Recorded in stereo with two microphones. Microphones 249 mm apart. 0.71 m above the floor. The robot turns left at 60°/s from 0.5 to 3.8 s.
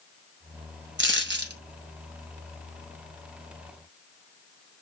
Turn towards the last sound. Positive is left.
turn(degrees=110)